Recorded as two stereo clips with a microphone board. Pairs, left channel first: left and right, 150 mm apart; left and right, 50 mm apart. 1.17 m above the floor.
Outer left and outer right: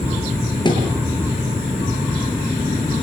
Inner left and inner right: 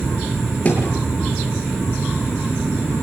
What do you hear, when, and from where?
0.7 s a thud: 30° left (ahead or behind), 7 m